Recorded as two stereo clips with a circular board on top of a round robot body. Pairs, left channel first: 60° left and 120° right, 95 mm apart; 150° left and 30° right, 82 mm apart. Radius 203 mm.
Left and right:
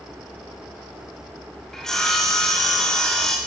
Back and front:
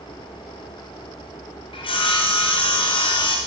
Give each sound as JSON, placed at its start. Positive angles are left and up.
{"t": 1.7, "sound": "sawing", "azimuth_deg": 145, "distance_m": 1.1}